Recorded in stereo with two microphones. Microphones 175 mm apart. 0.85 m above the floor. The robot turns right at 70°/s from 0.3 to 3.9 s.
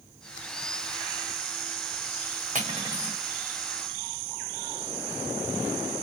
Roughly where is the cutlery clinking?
Ahead right.